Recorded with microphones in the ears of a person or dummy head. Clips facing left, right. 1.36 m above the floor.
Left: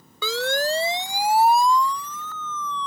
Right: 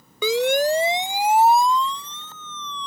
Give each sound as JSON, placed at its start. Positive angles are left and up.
{"t": 0.2, "sound": "a siren", "side_deg": -25}